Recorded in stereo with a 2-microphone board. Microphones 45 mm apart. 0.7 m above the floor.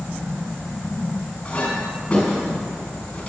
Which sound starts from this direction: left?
A clink, at 1.4 s.